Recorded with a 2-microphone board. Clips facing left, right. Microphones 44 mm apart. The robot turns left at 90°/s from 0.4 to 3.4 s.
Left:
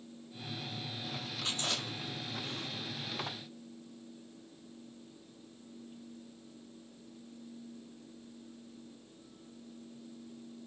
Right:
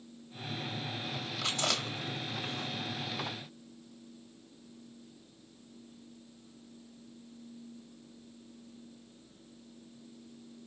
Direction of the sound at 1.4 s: 75° right (ahead or behind).